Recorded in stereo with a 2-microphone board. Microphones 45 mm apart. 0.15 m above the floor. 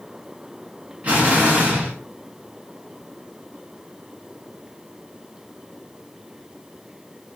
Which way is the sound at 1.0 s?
30° right (ahead or behind).